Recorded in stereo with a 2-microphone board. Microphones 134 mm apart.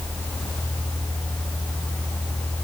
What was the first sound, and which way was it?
Only background noise.